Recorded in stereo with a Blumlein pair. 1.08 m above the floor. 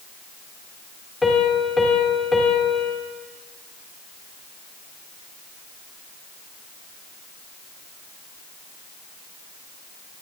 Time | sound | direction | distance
1.2 | a piano | 10° left | 2.5 m